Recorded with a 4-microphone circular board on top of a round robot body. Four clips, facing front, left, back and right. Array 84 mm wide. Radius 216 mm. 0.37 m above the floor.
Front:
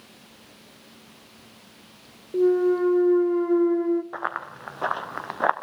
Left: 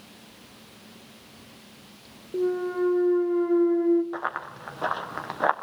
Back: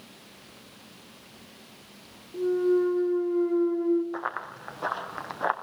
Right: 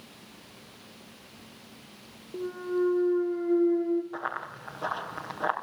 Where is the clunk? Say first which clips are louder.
Left 4 dB, front 4 dB; 20° left, 1.8 m.